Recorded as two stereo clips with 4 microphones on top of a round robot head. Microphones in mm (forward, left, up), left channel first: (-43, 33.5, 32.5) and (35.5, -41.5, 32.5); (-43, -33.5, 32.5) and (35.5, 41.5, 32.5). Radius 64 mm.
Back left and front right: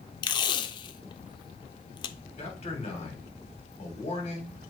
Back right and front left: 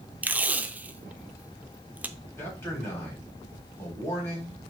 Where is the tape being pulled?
115° left, 0.6 m.